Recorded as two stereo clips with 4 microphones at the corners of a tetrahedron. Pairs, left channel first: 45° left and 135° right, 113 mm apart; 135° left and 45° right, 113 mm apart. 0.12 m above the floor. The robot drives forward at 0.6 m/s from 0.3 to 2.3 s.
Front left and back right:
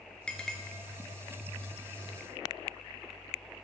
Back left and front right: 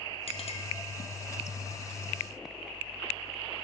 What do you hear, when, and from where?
0.3 s a clink: 125° left, 1.4 m; by 0.6 s 130° left, 1.5 m